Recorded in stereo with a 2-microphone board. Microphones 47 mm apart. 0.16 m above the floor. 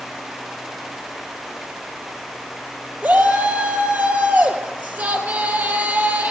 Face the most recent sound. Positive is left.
turn(degrees=-35)  # may be behind; listen again after turning